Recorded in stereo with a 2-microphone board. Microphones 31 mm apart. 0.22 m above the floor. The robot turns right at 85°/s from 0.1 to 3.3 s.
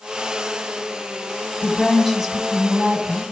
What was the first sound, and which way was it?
A woman speaking, 150° left.